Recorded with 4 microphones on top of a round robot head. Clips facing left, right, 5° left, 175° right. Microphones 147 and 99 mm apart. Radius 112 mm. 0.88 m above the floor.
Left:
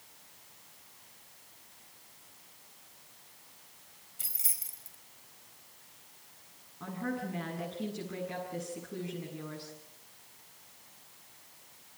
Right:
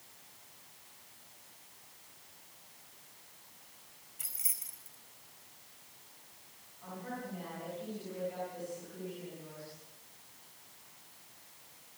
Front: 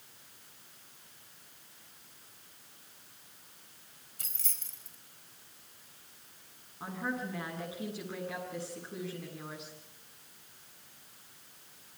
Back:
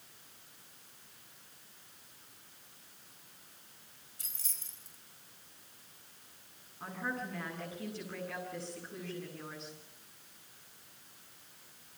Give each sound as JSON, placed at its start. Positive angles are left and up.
{"t": 4.2, "sound": "keys jangling", "azimuth_deg": 35, "distance_m": 4.5}
{"t": 6.8, "sound": "a woman speaking", "azimuth_deg": 75, "distance_m": 8.5}